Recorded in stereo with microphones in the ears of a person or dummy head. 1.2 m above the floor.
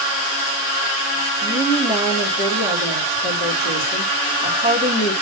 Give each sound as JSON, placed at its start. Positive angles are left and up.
{"t": 1.4, "sound": "a woman speaking", "side_deg": 50, "distance_m": 3.0}